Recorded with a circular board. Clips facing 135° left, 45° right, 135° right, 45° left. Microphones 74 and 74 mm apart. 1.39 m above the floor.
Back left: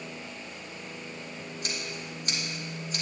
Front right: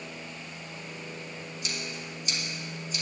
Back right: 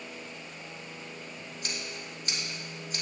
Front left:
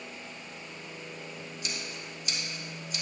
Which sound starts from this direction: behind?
Scissors, at 1.6 s.